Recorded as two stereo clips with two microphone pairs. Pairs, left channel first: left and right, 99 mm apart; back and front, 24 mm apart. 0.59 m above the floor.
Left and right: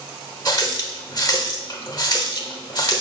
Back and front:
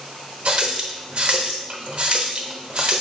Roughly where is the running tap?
Ahead left.